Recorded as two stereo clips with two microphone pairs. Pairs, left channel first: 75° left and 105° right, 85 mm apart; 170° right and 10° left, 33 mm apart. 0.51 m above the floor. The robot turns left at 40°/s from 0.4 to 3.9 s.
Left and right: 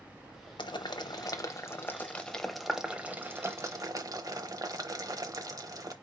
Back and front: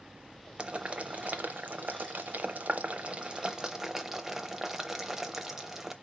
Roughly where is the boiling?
Ahead left.